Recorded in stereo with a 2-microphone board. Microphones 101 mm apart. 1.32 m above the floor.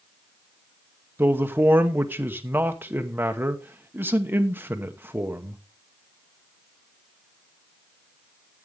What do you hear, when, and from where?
1.2 s a man speaking: 20° right (ahead or behind), 0.9 m